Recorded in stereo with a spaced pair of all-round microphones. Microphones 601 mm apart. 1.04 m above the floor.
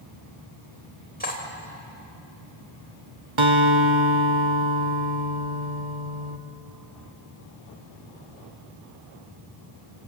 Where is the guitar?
50° right (ahead or behind), 1.3 m.